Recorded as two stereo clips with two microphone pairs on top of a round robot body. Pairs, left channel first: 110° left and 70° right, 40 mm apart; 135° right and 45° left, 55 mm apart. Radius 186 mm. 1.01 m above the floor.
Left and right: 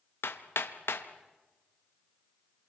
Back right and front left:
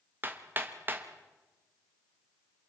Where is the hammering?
100° left, 1.2 m.